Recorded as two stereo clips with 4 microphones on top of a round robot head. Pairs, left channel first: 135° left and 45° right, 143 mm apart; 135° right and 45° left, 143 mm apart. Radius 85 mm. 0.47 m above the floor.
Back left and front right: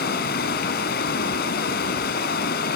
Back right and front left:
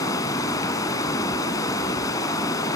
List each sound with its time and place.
0.0 s running water: 155° left, 2.5 m